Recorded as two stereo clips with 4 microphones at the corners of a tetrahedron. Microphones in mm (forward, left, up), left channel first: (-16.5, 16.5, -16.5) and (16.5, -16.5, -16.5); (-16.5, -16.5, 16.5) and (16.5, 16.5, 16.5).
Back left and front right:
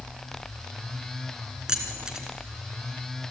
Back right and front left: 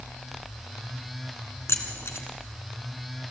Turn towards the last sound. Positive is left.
turn(degrees=-120)